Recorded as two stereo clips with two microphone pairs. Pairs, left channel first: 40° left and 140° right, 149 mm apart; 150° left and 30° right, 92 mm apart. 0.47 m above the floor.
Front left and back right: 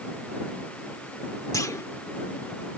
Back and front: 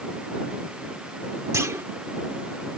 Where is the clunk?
10° right.